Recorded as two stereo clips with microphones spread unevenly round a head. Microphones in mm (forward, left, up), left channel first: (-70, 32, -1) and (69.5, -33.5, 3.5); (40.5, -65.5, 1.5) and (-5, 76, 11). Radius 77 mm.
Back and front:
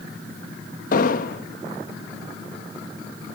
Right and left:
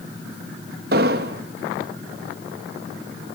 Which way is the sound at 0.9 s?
125° left.